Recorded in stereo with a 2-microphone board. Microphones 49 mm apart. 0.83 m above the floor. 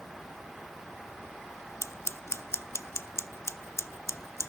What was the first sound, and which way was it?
Scissors, 65° left (ahead or behind).